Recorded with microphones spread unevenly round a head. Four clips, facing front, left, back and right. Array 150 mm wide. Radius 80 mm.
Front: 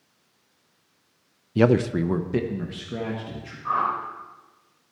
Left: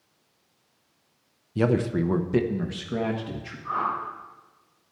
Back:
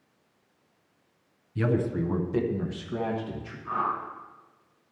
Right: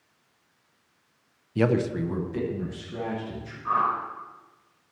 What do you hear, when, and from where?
1.6 s a man speaking: 10° right, 0.6 m; by 3.5 s 75° left, 1.9 m
3.6 s a whoosh: 20° right, 3.5 m